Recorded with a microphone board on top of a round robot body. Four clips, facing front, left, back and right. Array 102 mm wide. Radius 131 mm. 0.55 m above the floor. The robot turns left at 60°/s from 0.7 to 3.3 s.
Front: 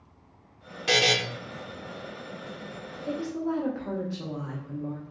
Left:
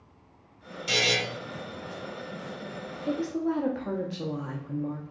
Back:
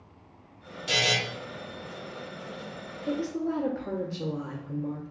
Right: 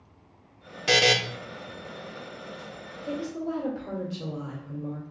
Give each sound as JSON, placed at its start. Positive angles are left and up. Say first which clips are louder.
{"t": 0.9, "sound": "a buzzer", "louder": "right 6 dB, front 4 dB", "azimuth_deg": -60, "distance_m": 0.6}
{"t": 3.0, "sound": "a woman speaking", "louder": "left 3 dB, back 1 dB", "azimuth_deg": 95, "distance_m": 1.1}